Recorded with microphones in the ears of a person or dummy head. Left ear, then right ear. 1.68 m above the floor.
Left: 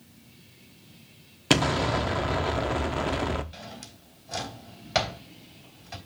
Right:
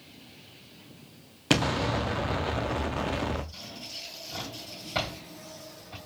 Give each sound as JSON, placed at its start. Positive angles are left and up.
{"t": 1.5, "sound": "an explosion", "side_deg": 5, "distance_m": 0.7}
{"t": 3.5, "sound": "a drawer", "side_deg": 50, "distance_m": 2.5}